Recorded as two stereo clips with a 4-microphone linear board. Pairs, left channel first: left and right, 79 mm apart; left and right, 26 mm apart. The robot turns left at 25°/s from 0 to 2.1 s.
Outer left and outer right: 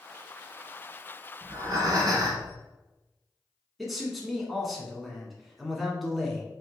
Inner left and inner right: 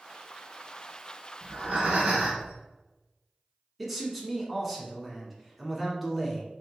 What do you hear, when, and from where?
1.4 s breathing: 50° right (ahead or behind), 1.5 m; by 2.5 s 45° right (ahead or behind), 1.5 m
3.8 s a man speaking: centre (ahead or behind), 1.1 m